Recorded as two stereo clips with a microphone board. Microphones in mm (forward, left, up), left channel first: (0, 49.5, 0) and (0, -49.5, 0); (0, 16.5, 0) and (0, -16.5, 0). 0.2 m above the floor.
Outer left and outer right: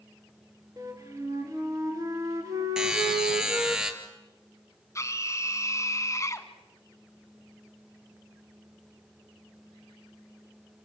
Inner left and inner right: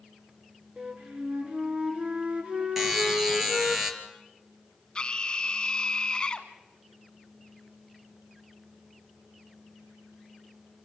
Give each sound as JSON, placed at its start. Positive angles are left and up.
{"t": 0.8, "sound": "a flute", "side_deg": -35, "distance_m": 3.0}
{"t": 2.8, "sound": "a buzzer", "side_deg": -5, "distance_m": 3.0}
{"t": 5.0, "sound": "a scream", "side_deg": 30, "distance_m": 1.6}